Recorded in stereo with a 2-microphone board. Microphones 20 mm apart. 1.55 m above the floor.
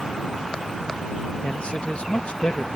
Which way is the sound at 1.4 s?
70° left (ahead or behind).